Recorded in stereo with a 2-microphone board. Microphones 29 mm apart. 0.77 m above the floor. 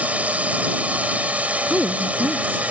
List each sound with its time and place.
0.0 s a drone: 60° right (ahead or behind)
1.7 s a woman speaking: 35° left (ahead or behind)